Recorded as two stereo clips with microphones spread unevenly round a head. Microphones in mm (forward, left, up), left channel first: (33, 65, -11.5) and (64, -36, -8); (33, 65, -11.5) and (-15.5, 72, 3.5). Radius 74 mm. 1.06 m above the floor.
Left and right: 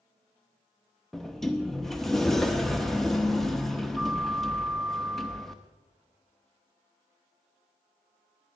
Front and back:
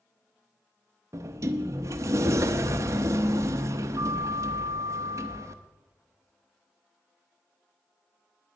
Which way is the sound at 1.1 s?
165° right.